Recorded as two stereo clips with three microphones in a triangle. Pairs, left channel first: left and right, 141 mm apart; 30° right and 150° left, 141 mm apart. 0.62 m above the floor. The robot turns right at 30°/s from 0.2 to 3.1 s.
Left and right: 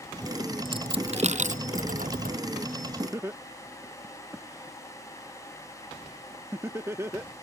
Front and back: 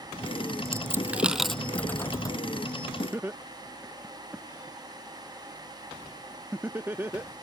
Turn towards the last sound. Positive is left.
turn(degrees=-145)